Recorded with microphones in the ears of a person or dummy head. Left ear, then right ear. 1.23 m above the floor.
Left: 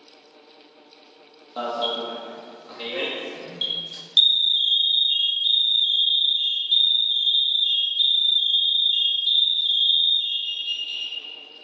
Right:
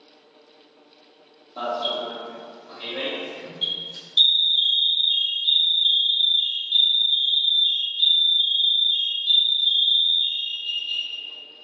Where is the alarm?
60° left (ahead or behind), 0.9 m.